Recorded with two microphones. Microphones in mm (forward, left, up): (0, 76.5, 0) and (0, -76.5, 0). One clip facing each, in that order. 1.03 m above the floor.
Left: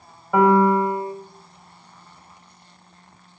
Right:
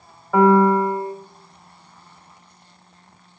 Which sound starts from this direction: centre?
A piano, at 0.3 s.